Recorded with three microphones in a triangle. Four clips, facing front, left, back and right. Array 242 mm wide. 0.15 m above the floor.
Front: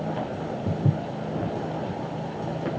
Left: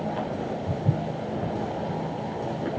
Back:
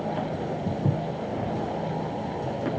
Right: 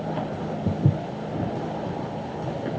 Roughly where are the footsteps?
Right.